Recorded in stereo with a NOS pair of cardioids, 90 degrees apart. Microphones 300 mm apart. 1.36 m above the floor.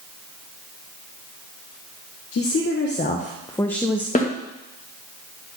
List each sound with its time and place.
2.3 s a woman speaking: 50° left, 1.2 m; by 4.0 s 5° right, 0.9 m
4.2 s a snare drum: 25° left, 1.6 m